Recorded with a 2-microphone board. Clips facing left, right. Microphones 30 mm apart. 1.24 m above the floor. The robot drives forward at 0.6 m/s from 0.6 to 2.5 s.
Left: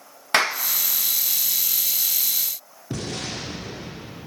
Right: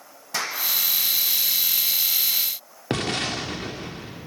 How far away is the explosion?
About 1.9 m.